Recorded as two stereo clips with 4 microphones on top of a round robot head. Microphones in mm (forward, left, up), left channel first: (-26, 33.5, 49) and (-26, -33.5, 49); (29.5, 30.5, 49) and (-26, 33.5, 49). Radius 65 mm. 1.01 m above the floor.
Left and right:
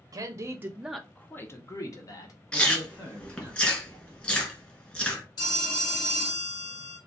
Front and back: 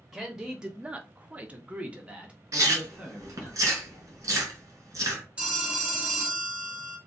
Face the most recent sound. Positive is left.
turn(degrees=105)